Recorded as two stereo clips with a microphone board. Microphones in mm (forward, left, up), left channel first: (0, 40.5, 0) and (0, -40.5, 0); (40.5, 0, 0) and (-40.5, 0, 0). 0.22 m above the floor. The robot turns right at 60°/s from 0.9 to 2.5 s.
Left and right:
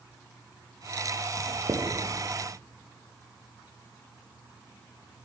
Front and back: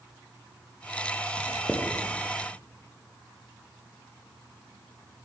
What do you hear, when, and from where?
1.4 s writing: 105° right, 8 m; by 1.9 s 75° right, 8 m